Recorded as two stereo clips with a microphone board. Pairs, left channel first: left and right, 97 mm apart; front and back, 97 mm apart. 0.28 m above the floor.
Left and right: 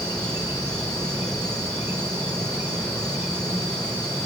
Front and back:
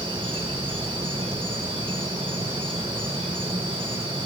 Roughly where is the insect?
Behind right.